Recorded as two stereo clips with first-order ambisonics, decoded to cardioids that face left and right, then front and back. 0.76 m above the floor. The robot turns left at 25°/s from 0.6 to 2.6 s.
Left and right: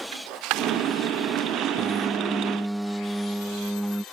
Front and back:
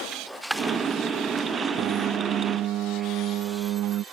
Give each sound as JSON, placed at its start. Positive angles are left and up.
{"t": 0.1, "sound": "a dropped coin", "azimuth_deg": -95}
{"t": 1.8, "sound": "a piano", "azimuth_deg": -155}